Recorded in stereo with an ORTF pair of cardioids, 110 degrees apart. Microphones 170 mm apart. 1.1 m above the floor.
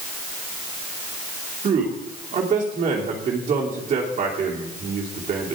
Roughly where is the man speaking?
Ahead right.